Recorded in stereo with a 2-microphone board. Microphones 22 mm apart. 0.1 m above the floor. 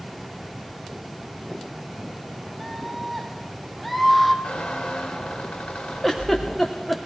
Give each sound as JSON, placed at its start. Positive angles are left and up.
{"t": 2.6, "sound": "a scream", "side_deg": 0, "distance_m": 4.5}
{"t": 4.4, "sound": "a squeak", "side_deg": 70, "distance_m": 5.5}
{"t": 6.0, "sound": "a giggle", "side_deg": 10, "distance_m": 4.0}